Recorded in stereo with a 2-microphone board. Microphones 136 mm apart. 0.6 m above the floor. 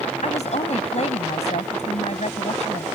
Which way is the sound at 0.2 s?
60° left (ahead or behind).